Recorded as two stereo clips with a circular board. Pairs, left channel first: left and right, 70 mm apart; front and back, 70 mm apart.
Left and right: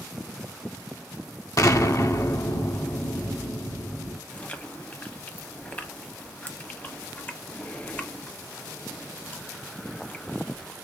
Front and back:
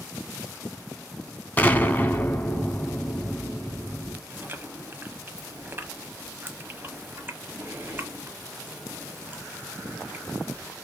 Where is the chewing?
145° left, 0.8 m.